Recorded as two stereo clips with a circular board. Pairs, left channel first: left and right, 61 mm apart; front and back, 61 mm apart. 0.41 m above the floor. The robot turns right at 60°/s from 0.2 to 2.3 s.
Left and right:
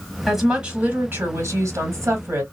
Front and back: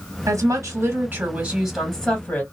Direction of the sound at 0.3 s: Straight behind.